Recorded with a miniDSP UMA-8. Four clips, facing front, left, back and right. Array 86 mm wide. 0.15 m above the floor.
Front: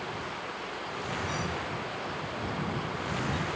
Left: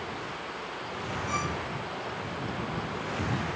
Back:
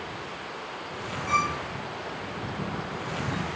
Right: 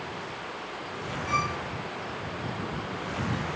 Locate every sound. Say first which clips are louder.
1.3 s a violin: right 5 dB, back 7 dB; 160° right